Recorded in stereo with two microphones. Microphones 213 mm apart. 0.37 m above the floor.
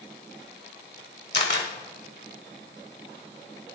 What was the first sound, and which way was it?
A camera shutter, 55° left (ahead or behind).